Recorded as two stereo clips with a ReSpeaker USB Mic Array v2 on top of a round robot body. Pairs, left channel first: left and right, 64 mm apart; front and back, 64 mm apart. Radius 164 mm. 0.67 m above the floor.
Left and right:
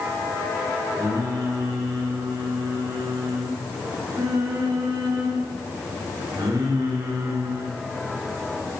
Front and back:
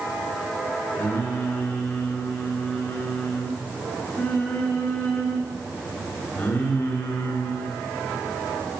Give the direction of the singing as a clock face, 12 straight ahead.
2 o'clock.